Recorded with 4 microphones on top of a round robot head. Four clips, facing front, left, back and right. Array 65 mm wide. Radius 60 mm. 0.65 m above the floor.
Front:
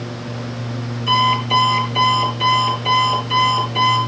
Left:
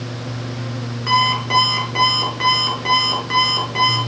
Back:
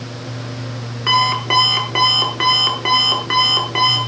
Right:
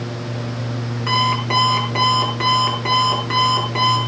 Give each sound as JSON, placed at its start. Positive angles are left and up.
{"t": 1.1, "sound": "an alarm clock", "azimuth_deg": -170, "distance_m": 6.5}